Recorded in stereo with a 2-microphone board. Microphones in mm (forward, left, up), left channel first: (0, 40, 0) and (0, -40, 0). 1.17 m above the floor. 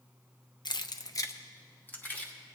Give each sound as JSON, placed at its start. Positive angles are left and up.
{"t": 0.7, "sound": "keys jangling", "side_deg": 60, "distance_m": 0.5}